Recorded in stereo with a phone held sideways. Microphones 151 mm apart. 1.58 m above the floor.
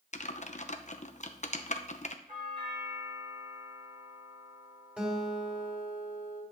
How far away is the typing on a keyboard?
About 0.8 m.